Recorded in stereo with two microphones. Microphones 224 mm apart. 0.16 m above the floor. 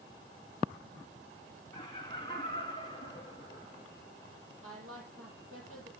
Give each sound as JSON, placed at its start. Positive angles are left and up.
{"t": 1.7, "sound": "laughter", "side_deg": 20, "distance_m": 1.0}
{"t": 4.6, "sound": "a woman speaking", "side_deg": -75, "distance_m": 5.5}